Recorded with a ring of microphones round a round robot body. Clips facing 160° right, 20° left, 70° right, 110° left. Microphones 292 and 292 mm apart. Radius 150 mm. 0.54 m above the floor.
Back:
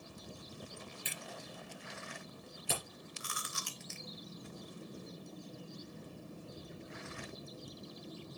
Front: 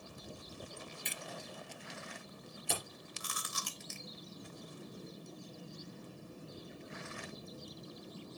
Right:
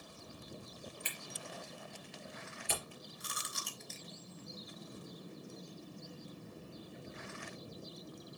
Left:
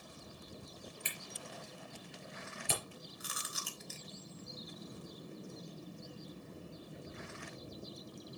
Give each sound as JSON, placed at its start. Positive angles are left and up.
{"t": 1.1, "sound": "a camera shutter", "azimuth_deg": 115, "distance_m": 3.5}
{"t": 3.2, "sound": "chewing", "azimuth_deg": 25, "distance_m": 1.3}